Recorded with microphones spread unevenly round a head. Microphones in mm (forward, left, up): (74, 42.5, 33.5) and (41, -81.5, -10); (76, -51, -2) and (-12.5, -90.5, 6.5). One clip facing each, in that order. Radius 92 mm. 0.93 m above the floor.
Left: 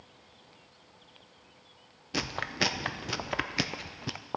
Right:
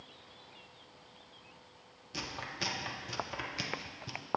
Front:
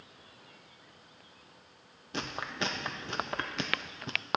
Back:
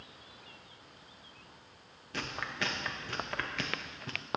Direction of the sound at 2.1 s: 80° left.